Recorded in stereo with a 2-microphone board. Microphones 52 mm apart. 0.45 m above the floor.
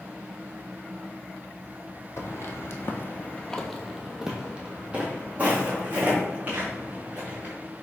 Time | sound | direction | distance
2.2 | footsteps | 65° left (ahead or behind) | 0.8 m